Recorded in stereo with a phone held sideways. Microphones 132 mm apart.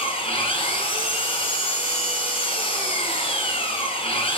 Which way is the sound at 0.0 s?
45° left (ahead or behind).